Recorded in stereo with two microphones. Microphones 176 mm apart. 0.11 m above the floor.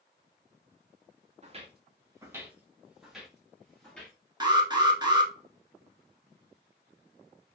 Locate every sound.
1.4 s footsteps: 40° right (ahead or behind), 0.7 m; by 4.2 s 5° left (ahead or behind), 1.8 m
4.4 s an alarm: 25° right (ahead or behind), 0.8 m